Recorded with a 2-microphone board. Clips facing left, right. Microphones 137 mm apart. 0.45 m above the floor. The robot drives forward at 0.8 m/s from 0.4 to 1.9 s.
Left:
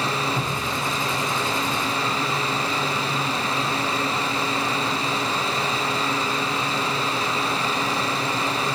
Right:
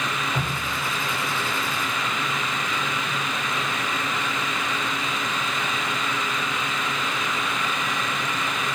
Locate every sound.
0.3 s dripping: 65° right (ahead or behind), 2 m; by 2.8 s 60° right (ahead or behind), 2 m